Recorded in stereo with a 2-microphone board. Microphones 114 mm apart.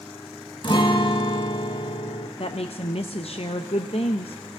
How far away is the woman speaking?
About 0.6 m.